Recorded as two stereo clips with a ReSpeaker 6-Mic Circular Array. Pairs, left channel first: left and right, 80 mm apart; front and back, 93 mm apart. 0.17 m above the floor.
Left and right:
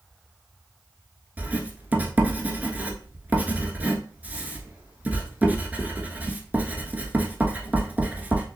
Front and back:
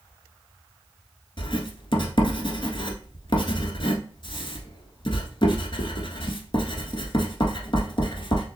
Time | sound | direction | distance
1.4 | writing | 20° right | 1.1 m